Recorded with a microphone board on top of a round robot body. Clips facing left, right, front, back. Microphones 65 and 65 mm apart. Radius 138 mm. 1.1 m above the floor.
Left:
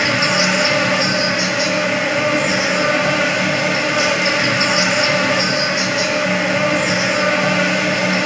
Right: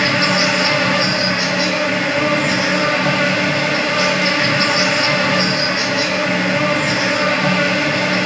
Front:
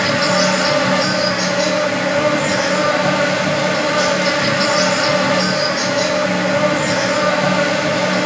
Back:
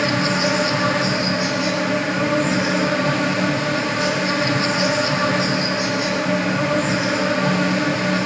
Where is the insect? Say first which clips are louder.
Right 1 dB, front 4 dB; 15° left, 8 m.